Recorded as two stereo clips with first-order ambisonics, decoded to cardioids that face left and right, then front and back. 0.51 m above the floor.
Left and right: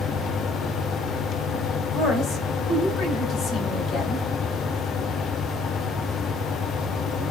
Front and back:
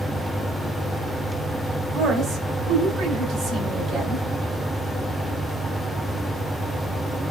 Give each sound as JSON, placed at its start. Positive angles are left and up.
{"t": 1.9, "sound": "a woman speaking", "azimuth_deg": 125, "distance_m": 1.5}